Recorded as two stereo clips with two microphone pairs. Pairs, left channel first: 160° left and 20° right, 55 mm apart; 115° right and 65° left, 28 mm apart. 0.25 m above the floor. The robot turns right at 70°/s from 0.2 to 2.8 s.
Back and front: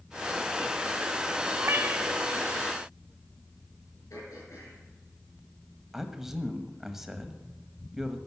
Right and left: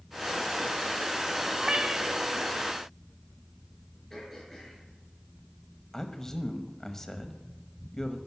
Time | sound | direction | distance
1.6 | a cat meowing | 5° left | 0.5 m
4.1 | throat clearing | 165° left | 5 m
5.9 | a man speaking | 90° right | 1.0 m